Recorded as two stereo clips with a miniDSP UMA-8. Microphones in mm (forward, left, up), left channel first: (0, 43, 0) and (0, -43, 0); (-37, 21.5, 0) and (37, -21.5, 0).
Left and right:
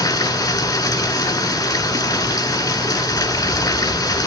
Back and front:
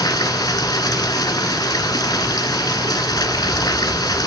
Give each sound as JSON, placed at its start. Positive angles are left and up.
{"t": 0.0, "sound": "running water", "azimuth_deg": 120, "distance_m": 1.6}